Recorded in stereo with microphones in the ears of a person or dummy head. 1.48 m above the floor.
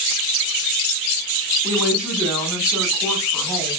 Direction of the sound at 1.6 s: 10° right (ahead or behind).